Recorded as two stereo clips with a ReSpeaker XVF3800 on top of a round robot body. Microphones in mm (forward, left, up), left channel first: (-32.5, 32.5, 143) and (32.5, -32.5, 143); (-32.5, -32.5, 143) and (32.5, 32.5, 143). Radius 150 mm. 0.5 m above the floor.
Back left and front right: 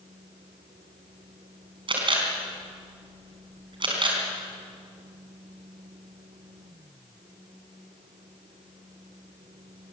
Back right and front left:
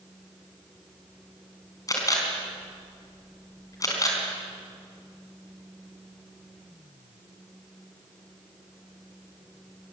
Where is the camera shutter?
80° right, 4.5 m.